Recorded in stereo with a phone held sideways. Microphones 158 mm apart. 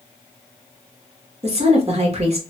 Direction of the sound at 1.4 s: 40° right (ahead or behind).